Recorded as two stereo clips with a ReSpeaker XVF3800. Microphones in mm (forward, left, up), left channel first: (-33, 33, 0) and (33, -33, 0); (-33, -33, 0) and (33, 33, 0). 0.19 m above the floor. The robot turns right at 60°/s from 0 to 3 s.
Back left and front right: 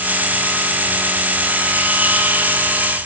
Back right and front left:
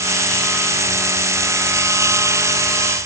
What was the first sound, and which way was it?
Only background noise.